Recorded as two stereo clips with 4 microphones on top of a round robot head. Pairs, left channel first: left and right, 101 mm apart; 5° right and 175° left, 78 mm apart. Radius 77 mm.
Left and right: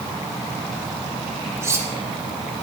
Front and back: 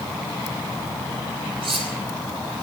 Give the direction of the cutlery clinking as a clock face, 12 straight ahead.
5 o'clock.